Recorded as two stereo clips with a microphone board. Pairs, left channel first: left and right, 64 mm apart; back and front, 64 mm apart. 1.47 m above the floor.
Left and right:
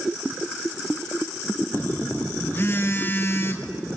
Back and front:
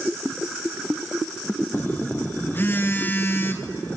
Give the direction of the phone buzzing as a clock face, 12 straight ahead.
8 o'clock.